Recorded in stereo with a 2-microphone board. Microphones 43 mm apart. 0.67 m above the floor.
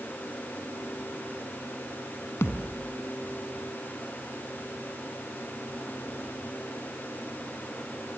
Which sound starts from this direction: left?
A thud, at 2.4 s.